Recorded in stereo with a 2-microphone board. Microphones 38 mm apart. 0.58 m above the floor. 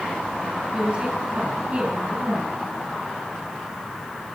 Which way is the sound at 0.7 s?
25° right (ahead or behind).